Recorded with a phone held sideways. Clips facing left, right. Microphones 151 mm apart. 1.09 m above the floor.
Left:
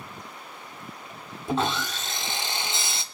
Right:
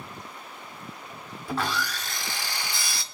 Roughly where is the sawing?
Left.